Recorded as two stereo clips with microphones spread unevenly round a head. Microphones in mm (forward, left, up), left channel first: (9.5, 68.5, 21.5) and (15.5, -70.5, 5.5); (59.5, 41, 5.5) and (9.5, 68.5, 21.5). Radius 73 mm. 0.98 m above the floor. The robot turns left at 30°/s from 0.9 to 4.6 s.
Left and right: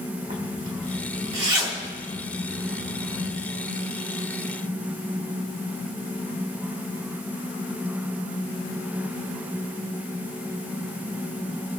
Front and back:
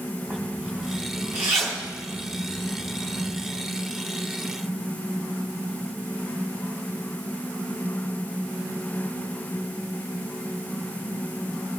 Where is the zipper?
125° right, 4 m; by 3.4 s 160° left, 4 m.